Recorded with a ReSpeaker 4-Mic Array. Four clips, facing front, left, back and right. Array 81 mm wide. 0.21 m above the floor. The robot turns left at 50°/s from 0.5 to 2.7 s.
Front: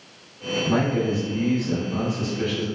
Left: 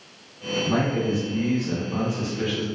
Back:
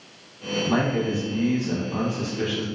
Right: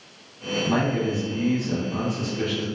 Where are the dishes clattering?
I don't hear dishes clattering.